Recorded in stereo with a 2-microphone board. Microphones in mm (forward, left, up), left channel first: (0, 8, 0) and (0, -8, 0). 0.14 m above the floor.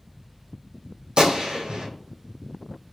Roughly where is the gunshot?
Right.